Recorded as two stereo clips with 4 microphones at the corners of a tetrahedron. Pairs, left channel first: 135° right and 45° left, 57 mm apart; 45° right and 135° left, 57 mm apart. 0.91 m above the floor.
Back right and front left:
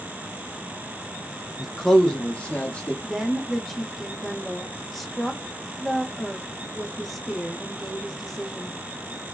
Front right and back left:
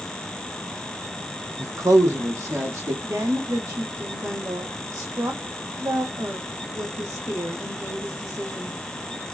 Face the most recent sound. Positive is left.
turn(degrees=140)